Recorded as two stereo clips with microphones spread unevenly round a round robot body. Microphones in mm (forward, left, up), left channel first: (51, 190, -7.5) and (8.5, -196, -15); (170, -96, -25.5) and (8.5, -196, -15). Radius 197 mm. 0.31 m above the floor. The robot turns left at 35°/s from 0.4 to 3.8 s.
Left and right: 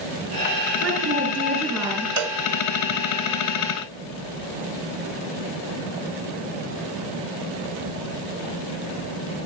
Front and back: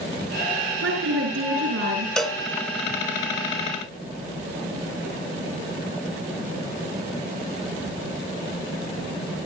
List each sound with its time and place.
0.8 s a woman speaking: 155° right, 5 m; by 2.1 s 160° left, 5 m
2.2 s a cowbell: 55° right, 1.6 m; by 2.4 s 60° right, 1.6 m